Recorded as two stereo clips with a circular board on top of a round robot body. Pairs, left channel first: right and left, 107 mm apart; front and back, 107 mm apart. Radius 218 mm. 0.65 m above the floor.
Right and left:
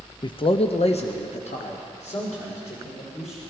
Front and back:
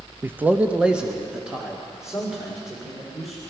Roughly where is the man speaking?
Behind right.